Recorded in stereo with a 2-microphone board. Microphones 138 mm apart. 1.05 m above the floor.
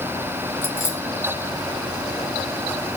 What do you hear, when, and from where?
0.6 s keys jangling: 15° left (ahead or behind), 4 m